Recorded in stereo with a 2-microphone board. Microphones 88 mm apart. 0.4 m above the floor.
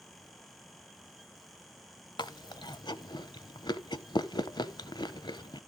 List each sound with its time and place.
2.2 s chewing: 55° left (ahead or behind), 0.7 m